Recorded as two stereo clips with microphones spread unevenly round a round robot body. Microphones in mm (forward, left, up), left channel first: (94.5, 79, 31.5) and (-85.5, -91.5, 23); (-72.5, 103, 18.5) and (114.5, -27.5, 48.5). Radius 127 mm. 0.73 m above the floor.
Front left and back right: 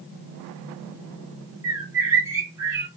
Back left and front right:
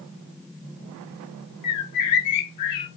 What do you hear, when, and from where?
1.6 s a bird: 145° left, 0.9 m